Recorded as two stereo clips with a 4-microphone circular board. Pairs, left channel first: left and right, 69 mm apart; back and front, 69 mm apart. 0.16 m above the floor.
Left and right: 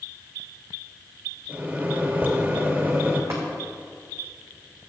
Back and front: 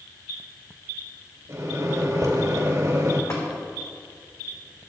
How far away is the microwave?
About 2.5 m.